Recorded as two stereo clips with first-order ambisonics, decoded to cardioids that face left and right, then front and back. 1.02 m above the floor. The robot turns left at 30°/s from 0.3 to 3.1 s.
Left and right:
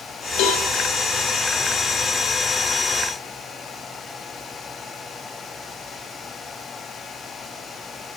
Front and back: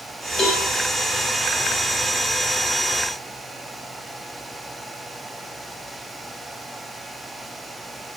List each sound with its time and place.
0.4 s a cowbell: 70° left, 2.5 m; by 0.6 s 60° left, 2.5 m